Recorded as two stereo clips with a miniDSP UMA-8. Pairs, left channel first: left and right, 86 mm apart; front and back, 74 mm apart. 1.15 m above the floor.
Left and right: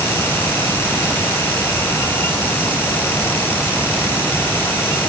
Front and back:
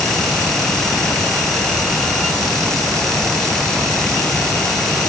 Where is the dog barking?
No dog barking in this recording.